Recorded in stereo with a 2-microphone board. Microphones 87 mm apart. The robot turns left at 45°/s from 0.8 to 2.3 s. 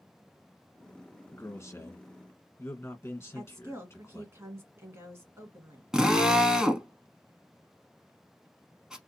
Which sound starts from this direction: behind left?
A man speaking, at 1.3 s.